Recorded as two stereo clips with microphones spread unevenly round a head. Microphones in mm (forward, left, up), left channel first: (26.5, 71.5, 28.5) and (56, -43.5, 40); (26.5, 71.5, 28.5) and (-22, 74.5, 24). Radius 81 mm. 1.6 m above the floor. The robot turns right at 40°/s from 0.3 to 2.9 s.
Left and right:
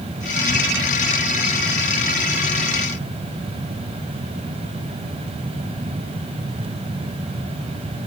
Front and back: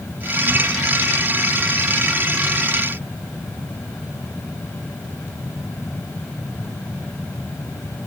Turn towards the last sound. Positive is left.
No sound to turn to.